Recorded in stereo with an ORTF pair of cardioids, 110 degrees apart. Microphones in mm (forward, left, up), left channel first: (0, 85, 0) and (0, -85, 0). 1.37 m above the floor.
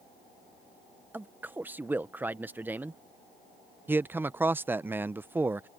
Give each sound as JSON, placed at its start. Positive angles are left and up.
{"t": 1.1, "sound": "a man speaking", "azimuth_deg": -10}
{"t": 3.9, "sound": "a man speaking", "azimuth_deg": -10}